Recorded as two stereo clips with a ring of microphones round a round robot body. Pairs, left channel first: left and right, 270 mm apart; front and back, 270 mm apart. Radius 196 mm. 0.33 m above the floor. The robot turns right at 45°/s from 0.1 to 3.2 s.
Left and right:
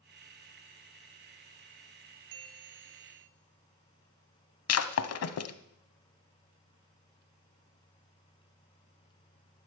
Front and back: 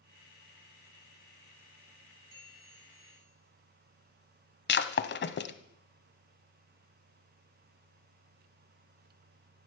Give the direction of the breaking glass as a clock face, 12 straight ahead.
10 o'clock.